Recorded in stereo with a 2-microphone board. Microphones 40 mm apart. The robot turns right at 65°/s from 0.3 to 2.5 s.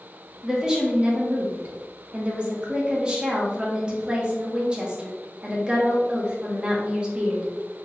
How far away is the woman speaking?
About 0.9 m.